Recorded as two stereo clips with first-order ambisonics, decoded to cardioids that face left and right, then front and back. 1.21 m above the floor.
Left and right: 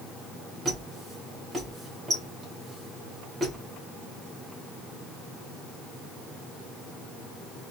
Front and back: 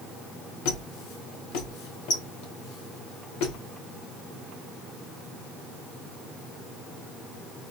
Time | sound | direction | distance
0.7 | a squeak | 15° right | 1.6 m